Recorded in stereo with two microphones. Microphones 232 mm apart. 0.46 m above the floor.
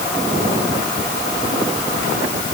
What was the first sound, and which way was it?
Only background noise.